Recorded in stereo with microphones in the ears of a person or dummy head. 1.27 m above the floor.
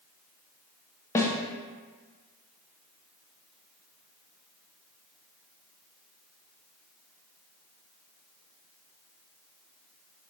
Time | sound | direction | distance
1.1 | a snare drum | 15° left (ahead or behind) | 0.7 m